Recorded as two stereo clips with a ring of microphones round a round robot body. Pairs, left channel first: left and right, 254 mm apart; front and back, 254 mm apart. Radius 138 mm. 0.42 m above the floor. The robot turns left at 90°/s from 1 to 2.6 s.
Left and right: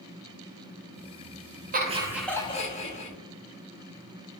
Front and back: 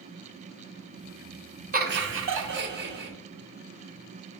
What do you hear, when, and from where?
1.7 s laughter: 135° right, 1.0 m; by 3.1 s 145° left, 1.0 m